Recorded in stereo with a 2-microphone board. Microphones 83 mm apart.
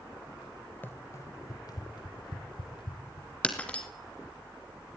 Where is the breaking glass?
15° left (ahead or behind), 3 m.